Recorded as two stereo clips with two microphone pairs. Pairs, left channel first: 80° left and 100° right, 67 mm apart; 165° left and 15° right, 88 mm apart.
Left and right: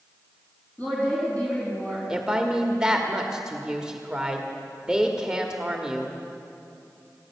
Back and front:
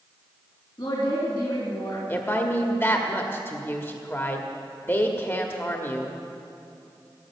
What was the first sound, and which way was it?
A woman speaking, 145° left.